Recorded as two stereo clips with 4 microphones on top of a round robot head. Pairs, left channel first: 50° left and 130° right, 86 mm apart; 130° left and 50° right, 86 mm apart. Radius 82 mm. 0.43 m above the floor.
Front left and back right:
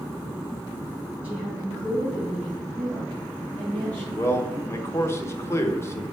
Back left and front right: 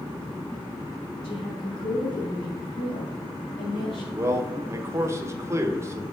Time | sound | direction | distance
1.2 | a woman speaking | 155° left | 4 m
4.1 | a man speaking | straight ahead | 1.1 m